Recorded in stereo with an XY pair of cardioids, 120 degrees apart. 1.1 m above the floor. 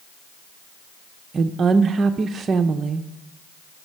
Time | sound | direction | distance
1.3 | a woman speaking | 35° right | 0.5 m